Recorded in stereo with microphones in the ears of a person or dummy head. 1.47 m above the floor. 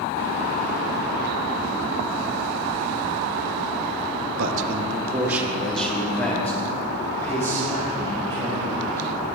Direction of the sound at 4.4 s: 50° right (ahead or behind).